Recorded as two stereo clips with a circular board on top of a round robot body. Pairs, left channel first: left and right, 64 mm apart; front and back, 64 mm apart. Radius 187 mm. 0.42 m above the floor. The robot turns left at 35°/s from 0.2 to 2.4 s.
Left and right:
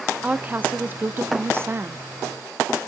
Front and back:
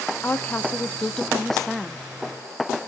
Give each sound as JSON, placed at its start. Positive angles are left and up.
{"t": 0.2, "sound": "a woman speaking", "azimuth_deg": -35, "distance_m": 0.8}